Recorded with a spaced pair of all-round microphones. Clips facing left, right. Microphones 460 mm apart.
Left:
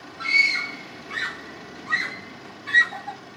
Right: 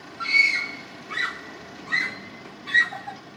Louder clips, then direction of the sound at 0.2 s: Even; 40° left (ahead or behind).